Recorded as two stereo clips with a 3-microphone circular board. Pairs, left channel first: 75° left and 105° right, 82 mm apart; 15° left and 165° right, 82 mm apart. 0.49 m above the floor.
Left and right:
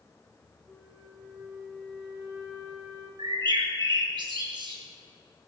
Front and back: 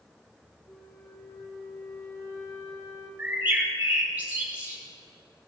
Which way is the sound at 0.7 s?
20° right.